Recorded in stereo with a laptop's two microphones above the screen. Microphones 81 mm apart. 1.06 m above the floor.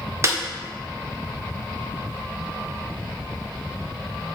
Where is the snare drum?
35° right (ahead or behind), 1.2 m.